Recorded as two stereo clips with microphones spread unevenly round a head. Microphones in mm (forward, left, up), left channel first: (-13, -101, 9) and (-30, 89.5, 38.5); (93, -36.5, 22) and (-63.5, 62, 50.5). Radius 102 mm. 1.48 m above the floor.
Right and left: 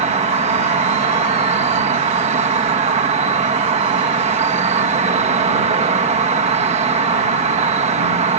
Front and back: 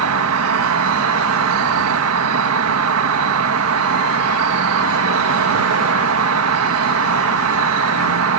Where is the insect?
150° left.